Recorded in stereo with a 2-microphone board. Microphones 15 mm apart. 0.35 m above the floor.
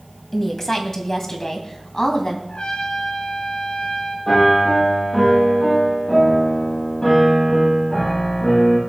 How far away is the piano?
About 7.5 m.